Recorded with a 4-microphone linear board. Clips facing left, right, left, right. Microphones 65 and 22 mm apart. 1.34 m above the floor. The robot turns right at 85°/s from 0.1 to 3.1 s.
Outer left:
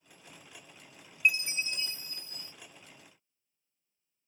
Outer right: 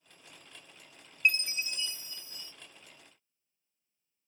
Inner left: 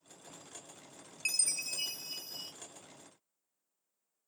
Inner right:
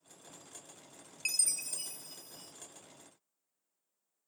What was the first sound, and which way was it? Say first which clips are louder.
A chime: outer left 1 dB, inner left 1 dB; 5° left.